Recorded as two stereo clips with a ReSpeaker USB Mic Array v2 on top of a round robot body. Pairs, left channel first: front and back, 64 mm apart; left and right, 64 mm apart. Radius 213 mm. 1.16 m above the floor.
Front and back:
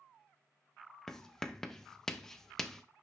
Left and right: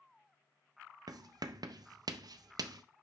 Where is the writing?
85° right, 0.5 m.